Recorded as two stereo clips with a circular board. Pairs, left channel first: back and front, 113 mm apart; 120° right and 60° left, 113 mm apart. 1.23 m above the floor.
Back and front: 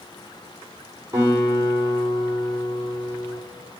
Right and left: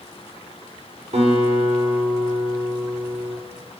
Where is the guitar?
65° left, 4 m.